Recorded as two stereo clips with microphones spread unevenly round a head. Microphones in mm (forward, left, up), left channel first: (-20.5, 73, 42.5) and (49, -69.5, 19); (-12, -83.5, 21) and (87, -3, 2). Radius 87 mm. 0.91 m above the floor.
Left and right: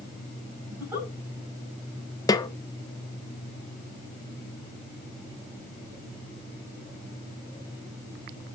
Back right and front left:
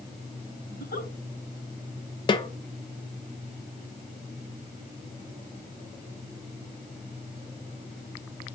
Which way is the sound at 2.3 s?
Straight behind.